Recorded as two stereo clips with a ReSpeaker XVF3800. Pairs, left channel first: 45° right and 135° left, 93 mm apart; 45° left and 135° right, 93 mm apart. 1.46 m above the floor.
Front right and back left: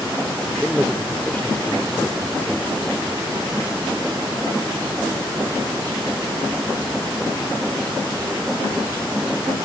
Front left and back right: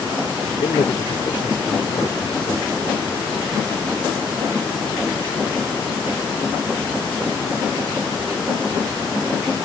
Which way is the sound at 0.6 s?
35° left.